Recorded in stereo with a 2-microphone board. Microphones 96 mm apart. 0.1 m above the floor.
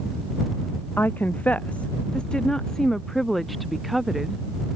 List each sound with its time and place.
1.0 s a woman speaking: 20° left (ahead or behind); by 4.4 s centre (ahead or behind)